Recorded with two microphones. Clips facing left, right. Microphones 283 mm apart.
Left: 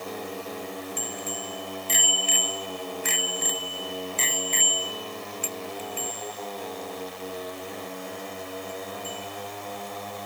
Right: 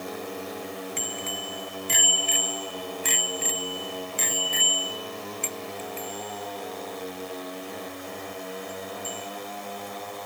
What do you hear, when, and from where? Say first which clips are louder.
1.0 s a bicycle bell: even; 85° right; by 10.3 s 30° left (ahead or behind)